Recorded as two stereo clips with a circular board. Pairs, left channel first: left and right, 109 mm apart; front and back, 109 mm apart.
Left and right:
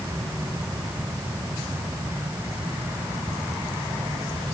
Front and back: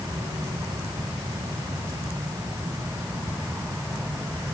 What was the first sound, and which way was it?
Only background noise.